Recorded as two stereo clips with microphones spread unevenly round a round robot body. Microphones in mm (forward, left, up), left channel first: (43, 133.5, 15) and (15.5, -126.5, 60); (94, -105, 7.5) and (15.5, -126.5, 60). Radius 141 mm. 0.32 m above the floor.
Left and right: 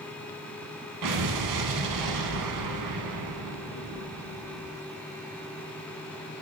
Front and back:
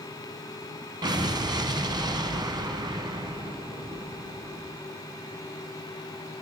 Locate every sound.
1.0 s an explosion: 120° right, 1.0 m